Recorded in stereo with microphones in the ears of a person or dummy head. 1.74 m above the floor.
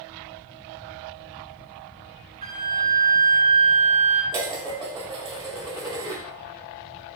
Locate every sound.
2.4 s a flute: 40° right (ahead or behind), 1.3 m
4.3 s dishes clattering: 20° right (ahead or behind), 0.8 m